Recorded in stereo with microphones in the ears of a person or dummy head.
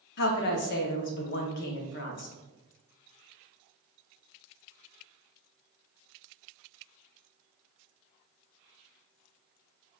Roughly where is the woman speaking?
Left.